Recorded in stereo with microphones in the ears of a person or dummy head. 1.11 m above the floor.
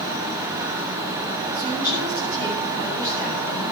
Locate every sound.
1.5 s a woman speaking: 20° left (ahead or behind), 7 m